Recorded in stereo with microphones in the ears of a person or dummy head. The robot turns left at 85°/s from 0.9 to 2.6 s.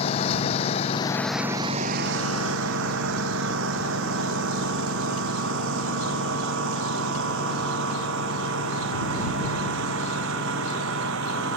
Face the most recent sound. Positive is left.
turn(degrees=-75)  # may be behind; listen again after turning